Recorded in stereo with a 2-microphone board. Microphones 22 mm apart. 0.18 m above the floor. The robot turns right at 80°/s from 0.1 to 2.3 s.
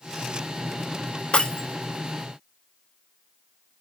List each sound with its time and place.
1.3 s breaking glass: 50° left (ahead or behind), 1.3 m; by 3.8 s 10° right (ahead or behind), 1.3 m